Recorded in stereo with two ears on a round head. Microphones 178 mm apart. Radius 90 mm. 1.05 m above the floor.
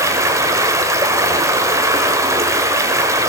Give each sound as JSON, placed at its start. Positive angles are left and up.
{"t": 0.0, "sound": "running water", "side_deg": -15, "distance_m": 1.0}